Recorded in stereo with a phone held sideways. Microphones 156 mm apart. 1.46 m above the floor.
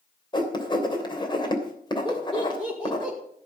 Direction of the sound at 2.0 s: 5° left (ahead or behind).